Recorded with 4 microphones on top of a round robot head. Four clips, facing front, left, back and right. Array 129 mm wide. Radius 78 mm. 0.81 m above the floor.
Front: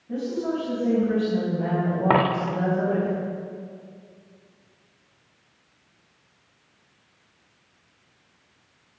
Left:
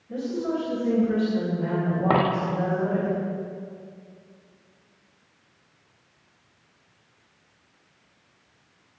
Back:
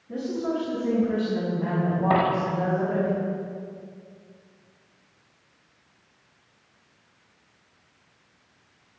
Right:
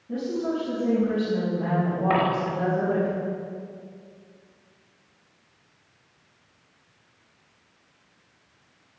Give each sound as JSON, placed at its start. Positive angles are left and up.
{"t": 0.1, "sound": "a woman speaking", "azimuth_deg": -35, "distance_m": 6.5}
{"t": 2.1, "sound": "a dropped coin", "azimuth_deg": 25, "distance_m": 0.7}